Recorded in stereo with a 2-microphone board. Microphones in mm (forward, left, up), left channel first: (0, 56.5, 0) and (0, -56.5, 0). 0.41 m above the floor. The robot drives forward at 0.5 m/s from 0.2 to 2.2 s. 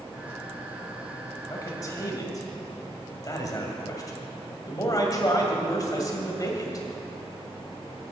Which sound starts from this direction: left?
A man speaking, at 1.5 s.